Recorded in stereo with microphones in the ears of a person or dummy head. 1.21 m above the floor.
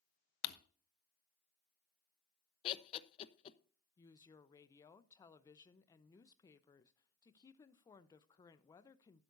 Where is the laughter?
35° left (ahead or behind), 0.8 m.